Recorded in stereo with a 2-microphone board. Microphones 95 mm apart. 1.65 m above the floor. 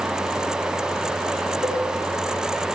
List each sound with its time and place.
1.6 s a cowbell: centre (ahead or behind), 3.5 m